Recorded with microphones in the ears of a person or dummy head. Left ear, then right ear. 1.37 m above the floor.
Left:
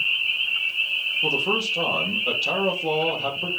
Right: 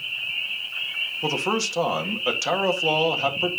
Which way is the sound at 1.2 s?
65° right (ahead or behind).